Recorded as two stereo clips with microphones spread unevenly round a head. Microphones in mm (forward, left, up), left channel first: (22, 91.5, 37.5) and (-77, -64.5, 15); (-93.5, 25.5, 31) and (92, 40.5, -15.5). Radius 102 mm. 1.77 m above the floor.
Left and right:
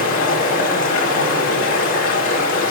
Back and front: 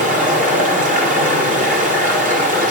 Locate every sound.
0.0 s running water: 60° left, 1.4 m